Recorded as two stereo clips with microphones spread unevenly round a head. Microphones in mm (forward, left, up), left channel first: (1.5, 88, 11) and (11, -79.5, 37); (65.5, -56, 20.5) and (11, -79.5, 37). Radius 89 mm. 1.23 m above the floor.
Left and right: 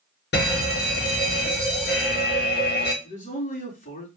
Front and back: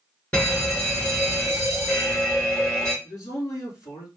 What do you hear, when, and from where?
0.3 s a fire alarm: 90° left, 3 m
3.0 s a man speaking: 50° left, 3 m